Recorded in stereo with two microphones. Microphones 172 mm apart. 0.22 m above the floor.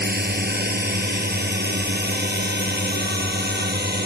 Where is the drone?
70° right (ahead or behind); by 4.1 s 75° right (ahead or behind).